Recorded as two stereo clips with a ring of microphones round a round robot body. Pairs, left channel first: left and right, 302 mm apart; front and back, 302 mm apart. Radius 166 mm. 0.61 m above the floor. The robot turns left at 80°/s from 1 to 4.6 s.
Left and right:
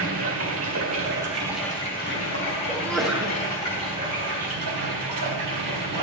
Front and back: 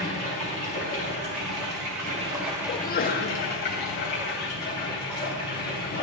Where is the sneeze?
25° left, 0.8 m; by 3.4 s 30° right, 0.8 m.